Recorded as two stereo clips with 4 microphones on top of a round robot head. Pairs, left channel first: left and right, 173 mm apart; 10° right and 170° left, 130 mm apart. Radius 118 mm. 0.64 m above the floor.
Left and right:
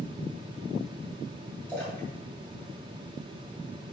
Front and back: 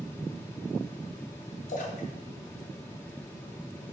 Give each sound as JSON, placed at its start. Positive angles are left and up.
{"t": 1.7, "sound": "a splash", "azimuth_deg": 10, "distance_m": 2.5}